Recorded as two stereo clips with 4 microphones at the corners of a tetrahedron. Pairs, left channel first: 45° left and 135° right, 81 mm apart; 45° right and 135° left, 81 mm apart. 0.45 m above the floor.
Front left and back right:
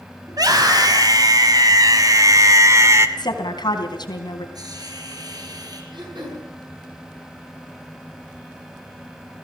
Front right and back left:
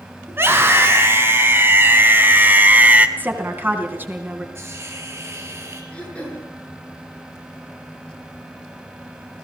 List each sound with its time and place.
0.3 s a scream: 165° right, 4.5 m
3.2 s a woman speaking: 70° left, 3.5 m
4.5 s a hiss: 170° right, 4 m
5.9 s throat clearing: 120° right, 7.5 m